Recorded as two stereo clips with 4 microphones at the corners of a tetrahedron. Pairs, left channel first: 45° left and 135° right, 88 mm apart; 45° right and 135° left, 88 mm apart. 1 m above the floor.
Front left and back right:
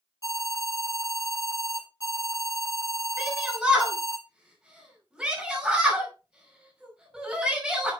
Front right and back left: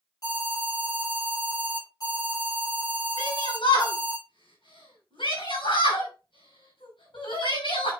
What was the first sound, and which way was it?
An alarm, 5° right.